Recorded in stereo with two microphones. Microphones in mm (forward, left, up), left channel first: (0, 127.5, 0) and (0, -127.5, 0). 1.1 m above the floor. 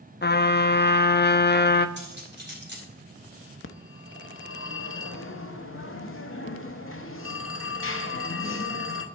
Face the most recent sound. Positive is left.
turn(degrees=55)  # may be behind; listen again after turning